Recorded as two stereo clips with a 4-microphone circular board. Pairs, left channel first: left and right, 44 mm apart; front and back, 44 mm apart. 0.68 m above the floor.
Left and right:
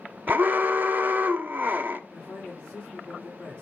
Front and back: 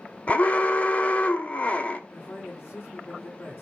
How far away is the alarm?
About 1.0 m.